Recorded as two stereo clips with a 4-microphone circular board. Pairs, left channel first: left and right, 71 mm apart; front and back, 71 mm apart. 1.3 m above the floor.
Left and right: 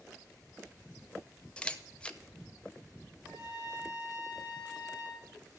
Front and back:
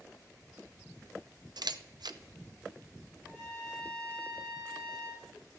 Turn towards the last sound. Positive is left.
turn(degrees=-95)